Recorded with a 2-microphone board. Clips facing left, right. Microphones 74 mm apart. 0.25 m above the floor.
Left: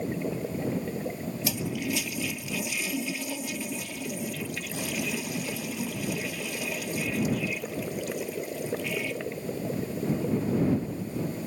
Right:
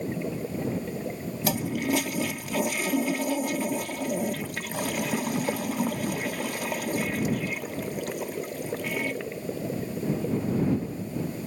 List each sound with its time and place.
1.4 s a toilet flushing: 50° right (ahead or behind)